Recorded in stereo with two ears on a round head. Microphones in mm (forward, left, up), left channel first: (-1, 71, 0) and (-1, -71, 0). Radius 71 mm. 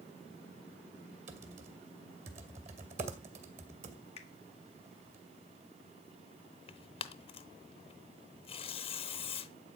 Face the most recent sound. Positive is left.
turn(degrees=35)  # may be behind; listen again after turning